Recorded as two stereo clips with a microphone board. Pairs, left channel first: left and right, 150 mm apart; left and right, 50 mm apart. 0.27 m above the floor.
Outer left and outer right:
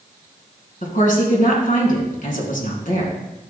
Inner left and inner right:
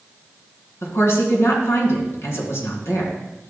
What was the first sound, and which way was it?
A woman speaking, 65° left (ahead or behind).